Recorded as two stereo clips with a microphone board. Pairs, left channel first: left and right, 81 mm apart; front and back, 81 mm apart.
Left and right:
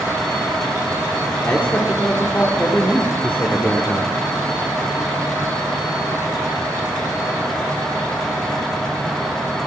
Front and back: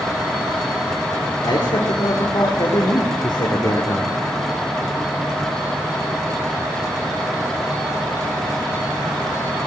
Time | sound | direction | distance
1.4 | a man speaking | 20° left | 2.0 m